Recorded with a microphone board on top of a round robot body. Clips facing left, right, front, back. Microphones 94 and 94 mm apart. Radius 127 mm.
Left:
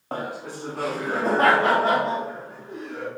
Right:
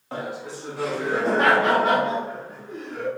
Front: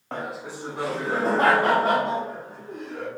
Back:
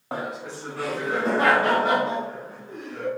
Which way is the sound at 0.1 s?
105° left.